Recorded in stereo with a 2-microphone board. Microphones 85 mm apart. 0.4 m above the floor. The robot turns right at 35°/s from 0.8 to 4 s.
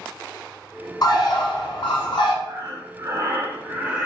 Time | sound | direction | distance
1.0 | a bird | 55° left | 0.8 m
2.5 | breathing | 70° right | 1.2 m